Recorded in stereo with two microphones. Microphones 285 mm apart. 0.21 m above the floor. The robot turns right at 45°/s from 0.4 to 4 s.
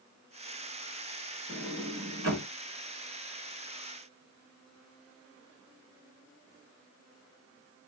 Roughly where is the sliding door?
Behind right.